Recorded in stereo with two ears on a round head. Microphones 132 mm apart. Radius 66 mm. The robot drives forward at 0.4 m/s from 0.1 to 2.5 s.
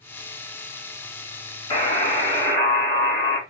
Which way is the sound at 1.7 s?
30° left (ahead or behind).